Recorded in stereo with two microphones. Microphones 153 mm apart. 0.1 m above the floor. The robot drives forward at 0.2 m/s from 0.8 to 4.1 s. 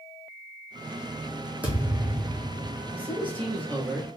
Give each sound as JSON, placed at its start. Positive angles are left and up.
{"t": 1.6, "sound": "a thud", "side_deg": -10, "distance_m": 1.9}
{"t": 2.9, "sound": "a man speaking", "side_deg": -35, "distance_m": 1.9}